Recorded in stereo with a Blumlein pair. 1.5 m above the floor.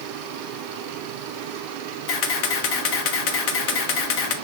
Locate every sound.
2.1 s a camera shutter: 45° left, 1.2 m